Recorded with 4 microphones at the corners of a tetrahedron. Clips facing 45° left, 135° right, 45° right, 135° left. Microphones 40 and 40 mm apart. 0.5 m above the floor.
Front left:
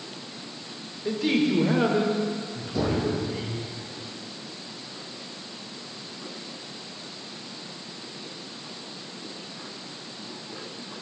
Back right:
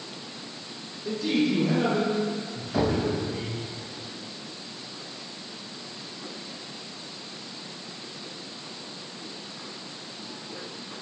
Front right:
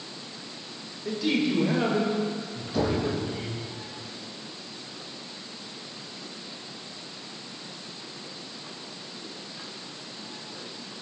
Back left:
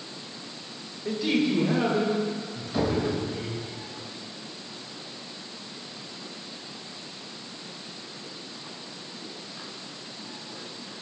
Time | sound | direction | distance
1.1 | a man speaking | 60° left | 1.5 m
2.7 | knocking | 145° right | 2.5 m